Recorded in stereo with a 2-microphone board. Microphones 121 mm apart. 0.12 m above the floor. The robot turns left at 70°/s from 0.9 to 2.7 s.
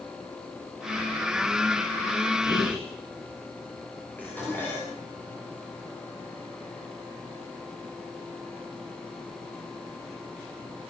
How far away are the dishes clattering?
About 9.5 m.